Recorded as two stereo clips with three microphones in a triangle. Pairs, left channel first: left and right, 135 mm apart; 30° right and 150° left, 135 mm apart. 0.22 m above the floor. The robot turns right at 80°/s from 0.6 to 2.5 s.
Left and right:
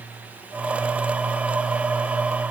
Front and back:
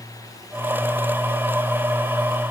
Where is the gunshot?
No gunshot in this recording.